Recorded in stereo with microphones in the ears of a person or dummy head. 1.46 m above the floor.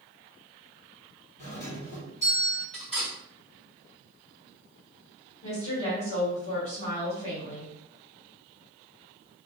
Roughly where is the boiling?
I don't hear boiling.